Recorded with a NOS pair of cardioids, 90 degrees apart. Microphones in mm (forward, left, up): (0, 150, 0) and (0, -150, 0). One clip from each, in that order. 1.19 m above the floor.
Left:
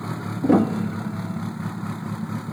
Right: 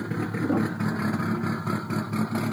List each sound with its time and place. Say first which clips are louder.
0.4 s a piano: left 8 dB; 65° left